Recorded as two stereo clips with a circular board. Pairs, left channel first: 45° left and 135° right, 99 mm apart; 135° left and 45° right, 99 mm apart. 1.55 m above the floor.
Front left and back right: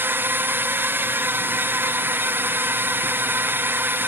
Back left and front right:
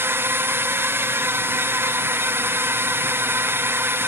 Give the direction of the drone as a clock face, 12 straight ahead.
3 o'clock.